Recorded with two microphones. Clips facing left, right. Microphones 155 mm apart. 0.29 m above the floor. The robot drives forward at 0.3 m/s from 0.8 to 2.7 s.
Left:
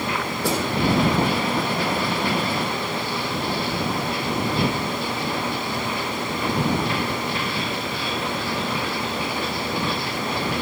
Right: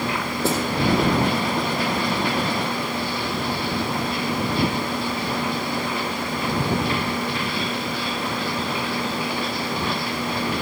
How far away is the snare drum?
About 3.5 m.